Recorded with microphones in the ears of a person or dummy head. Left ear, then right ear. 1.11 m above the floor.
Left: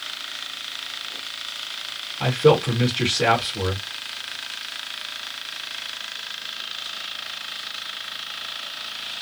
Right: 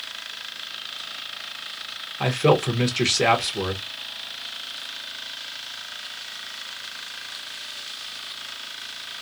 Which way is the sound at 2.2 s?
75° right (ahead or behind).